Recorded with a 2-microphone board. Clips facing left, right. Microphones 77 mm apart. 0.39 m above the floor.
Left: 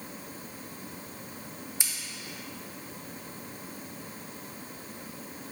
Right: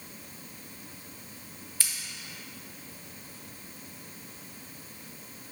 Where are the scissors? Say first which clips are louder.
Right 2 dB; 20° left (ahead or behind), 0.7 m.